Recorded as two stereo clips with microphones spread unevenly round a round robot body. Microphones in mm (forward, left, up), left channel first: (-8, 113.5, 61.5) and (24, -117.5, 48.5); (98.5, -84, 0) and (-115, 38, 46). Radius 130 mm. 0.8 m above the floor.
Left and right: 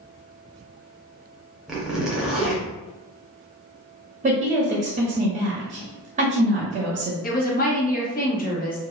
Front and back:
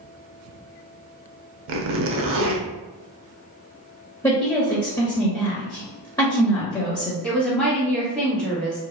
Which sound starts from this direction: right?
A woman speaking, at 4.2 s.